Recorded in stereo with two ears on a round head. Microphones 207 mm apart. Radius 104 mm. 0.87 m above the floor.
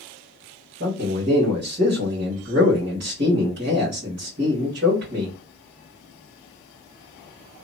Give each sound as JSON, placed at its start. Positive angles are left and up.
{"t": 0.8, "sound": "a man speaking", "side_deg": -50, "distance_m": 1.5}